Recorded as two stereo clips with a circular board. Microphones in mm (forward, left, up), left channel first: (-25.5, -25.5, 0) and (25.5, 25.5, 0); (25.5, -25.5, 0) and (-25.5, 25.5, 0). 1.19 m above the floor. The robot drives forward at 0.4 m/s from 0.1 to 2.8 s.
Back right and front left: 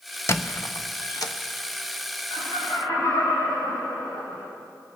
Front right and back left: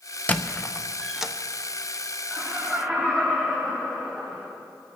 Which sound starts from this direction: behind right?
Laughter, at 2.3 s.